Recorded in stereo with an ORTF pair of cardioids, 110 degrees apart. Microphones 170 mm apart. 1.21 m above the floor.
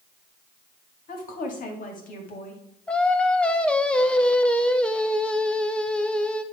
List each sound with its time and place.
1.1 s a woman speaking: 50° left, 2.5 m
2.9 s singing: 5° left, 0.7 m